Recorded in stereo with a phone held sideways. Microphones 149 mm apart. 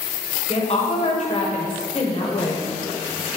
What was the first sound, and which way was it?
A woman speaking, 45° left (ahead or behind).